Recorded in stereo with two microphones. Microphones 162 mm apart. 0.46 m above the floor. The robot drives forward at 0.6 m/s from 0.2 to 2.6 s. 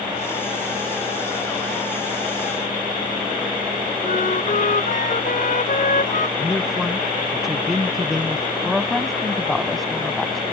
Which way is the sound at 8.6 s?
Centre (ahead or behind).